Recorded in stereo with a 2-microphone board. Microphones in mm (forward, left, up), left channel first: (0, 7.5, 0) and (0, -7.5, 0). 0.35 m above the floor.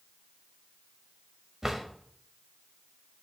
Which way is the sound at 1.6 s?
30° right (ahead or behind).